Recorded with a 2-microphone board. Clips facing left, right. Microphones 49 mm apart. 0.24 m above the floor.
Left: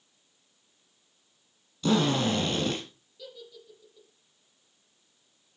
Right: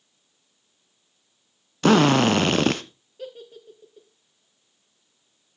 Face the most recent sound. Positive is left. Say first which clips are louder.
# right 7 dB
turn(degrees=-45)  # may be behind; listen again after turning